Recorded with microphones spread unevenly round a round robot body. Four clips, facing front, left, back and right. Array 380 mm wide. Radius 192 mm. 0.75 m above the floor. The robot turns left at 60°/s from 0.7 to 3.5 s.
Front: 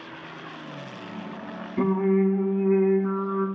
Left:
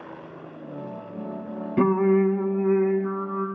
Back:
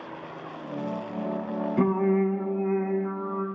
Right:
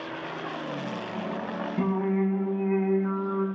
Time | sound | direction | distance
1.8 | singing | 105° left | 1.5 m